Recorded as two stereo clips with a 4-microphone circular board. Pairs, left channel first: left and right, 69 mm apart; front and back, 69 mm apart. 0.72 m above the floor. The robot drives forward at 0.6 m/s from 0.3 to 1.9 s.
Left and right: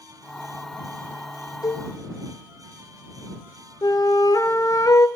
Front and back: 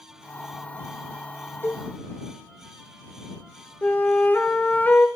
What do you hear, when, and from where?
1.6 s a cowbell: 60° left, 0.8 m; by 1.9 s 70° left, 0.7 m
3.8 s a flute: 60° left, 0.6 m